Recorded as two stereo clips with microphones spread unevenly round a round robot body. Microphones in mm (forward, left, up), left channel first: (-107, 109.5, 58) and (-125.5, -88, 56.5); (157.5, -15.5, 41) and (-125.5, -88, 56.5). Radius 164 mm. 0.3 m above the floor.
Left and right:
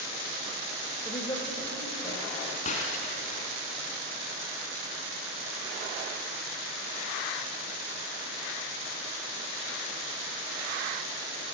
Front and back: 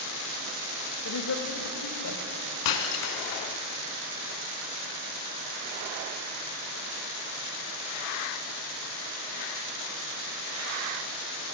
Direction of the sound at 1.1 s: 15° left.